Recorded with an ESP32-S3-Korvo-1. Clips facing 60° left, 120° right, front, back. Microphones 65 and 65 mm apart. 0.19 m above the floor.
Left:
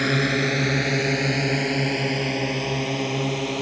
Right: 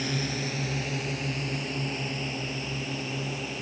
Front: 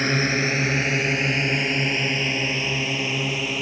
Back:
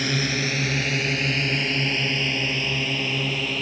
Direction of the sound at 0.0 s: 55° left.